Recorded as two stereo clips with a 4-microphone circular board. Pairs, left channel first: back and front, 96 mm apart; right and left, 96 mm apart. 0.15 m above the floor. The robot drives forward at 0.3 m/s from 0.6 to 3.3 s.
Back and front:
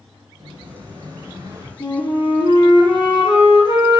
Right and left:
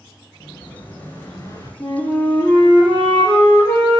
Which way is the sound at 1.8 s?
145° right.